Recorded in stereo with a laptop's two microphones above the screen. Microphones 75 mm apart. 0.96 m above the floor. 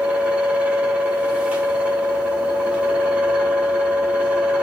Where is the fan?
20° right (ahead or behind), 0.8 m.